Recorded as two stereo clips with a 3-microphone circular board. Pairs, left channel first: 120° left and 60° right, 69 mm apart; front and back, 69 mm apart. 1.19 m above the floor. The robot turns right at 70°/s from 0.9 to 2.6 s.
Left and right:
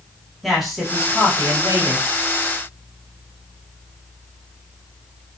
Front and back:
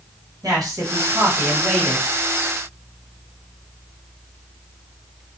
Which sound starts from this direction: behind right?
A man speaking, at 0.4 s.